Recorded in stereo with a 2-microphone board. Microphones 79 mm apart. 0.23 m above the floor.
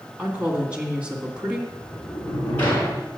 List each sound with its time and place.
0.2 s a woman speaking: 15° right (ahead or behind), 2 m
1.7 s a sliding door: 20° left (ahead or behind), 3 m